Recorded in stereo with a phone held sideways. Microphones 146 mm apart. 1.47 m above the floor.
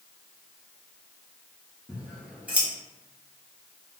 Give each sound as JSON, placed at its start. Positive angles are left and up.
{"t": 1.9, "sound": "scissors", "side_deg": -10, "distance_m": 0.8}